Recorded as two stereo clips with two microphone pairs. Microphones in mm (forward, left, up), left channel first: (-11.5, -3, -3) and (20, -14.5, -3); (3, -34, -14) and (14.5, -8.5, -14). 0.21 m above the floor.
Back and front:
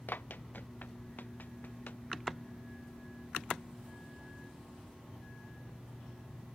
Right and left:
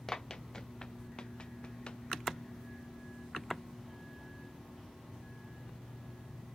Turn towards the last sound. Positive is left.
turn(degrees=-170)